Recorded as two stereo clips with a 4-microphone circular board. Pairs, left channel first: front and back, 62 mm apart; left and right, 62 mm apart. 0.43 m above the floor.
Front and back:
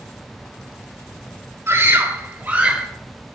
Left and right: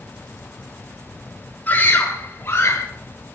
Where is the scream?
145° left, 2 m; by 2.9 s 105° left, 1.8 m.